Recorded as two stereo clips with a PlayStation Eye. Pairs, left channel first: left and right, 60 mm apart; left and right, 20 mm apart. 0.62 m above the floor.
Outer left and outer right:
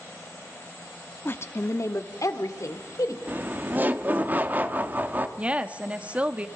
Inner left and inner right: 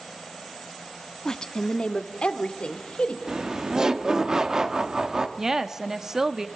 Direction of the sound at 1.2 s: 35° left (ahead or behind).